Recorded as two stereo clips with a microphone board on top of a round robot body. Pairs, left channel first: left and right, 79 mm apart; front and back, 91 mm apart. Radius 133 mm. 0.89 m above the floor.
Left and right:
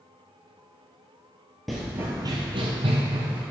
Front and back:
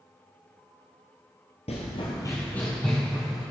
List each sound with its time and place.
1.7 s running footsteps: straight ahead, 1.1 m; by 3.4 s 95° right, 2 m